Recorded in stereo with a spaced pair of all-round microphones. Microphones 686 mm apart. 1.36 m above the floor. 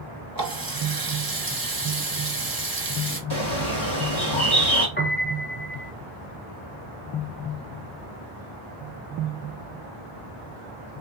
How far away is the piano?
About 0.9 m.